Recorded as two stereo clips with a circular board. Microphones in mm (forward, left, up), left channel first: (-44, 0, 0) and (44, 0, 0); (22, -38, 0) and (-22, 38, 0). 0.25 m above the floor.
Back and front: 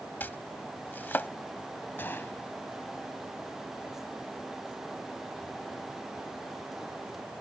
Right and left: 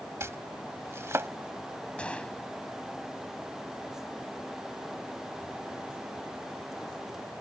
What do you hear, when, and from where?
0.2 s chopping: 135° left
2.0 s a gunshot: 130° right